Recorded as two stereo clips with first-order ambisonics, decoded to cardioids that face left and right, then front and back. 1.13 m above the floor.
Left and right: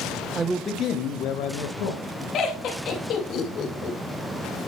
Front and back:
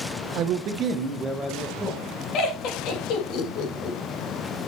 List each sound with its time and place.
0.3 s a man speaking: 155° right, 0.7 m; by 2.2 s 90° left, 2 m
2.3 s laughter: 40° left, 2.5 m